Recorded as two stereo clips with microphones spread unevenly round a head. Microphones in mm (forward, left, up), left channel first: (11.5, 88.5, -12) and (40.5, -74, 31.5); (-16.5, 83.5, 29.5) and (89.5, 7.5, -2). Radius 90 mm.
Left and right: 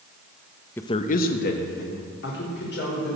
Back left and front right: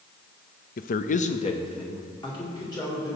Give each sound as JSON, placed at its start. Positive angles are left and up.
{"t": 0.8, "sound": "a man speaking", "azimuth_deg": 165, "distance_m": 0.6}